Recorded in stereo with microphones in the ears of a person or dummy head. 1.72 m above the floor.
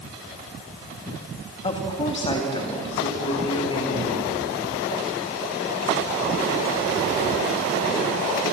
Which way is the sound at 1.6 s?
30° left (ahead or behind).